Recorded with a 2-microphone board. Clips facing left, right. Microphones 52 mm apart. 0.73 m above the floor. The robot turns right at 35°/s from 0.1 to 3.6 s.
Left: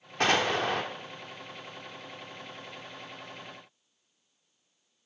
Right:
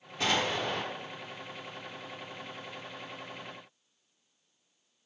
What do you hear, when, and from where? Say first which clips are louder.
0.2 s an explosion: left 4 dB; 60° left (ahead or behind), 1.3 m; by 0.8 s 75° left (ahead or behind), 1.3 m